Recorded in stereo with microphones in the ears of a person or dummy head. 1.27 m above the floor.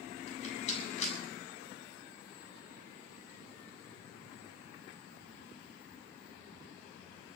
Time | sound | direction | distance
0.3 | a rattle | 40° left (ahead or behind) | 7.5 m